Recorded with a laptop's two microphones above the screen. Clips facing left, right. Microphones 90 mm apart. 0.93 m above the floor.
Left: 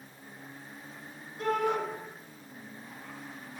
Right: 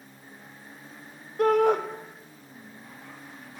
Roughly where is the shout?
Right.